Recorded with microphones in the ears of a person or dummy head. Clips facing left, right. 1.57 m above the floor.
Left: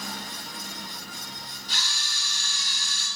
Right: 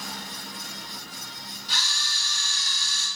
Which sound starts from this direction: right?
A camera shutter, at 1.7 s.